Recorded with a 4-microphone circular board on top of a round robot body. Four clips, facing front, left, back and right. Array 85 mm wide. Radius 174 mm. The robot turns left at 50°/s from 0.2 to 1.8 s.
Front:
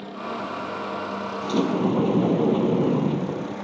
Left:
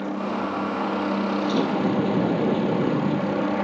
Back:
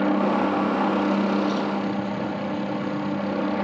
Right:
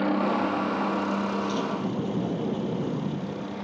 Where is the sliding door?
40° left; by 3.5 s 20° left.